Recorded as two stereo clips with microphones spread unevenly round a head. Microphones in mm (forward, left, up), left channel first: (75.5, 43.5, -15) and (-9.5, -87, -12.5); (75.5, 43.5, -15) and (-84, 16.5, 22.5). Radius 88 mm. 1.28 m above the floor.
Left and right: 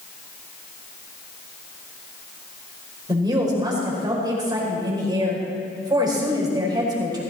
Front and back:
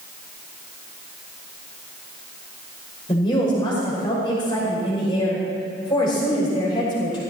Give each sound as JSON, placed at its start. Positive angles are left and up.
{"t": 3.1, "sound": "a woman speaking", "azimuth_deg": -60, "distance_m": 5.5}